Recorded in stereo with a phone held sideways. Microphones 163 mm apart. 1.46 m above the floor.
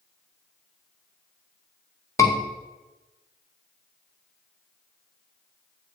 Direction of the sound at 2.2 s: 20° left (ahead or behind).